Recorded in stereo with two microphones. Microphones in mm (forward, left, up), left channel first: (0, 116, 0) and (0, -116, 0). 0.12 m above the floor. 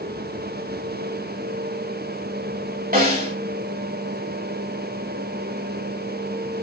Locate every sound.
2.9 s a snare drum: 40° right (ahead or behind), 3.5 m